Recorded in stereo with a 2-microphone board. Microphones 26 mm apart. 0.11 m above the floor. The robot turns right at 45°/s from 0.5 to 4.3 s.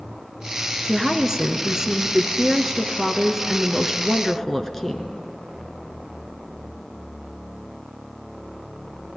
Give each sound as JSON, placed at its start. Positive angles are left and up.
{"t": 0.8, "sound": "a woman speaking", "side_deg": -20, "distance_m": 1.2}